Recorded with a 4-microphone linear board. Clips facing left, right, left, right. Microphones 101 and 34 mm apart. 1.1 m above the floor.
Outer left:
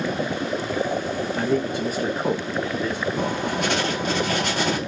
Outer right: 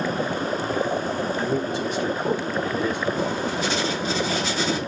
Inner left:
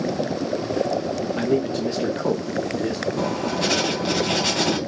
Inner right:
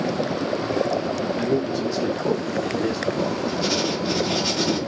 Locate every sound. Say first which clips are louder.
1.4 s a man speaking: outer left 2 dB, inner left 2 dB; 75° left (ahead or behind), 1.4 m; by 3.1 s 10° right (ahead or behind), 2 m
3.2 s writing: even, even; 60° left (ahead or behind), 2.5 m